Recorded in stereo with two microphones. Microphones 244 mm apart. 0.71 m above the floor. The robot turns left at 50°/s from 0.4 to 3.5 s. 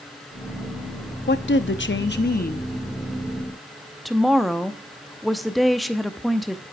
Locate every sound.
1.3 s a woman speaking: 110° left, 0.7 m; by 6.6 s straight ahead, 0.7 m